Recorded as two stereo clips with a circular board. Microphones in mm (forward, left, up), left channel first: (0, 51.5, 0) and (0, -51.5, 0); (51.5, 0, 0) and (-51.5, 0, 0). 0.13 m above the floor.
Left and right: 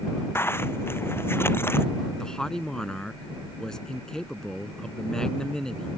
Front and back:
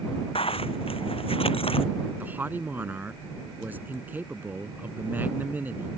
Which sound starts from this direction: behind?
A man speaking, at 2.2 s.